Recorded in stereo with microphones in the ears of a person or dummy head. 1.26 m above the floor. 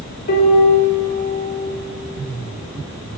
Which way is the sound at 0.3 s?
55° left (ahead or behind).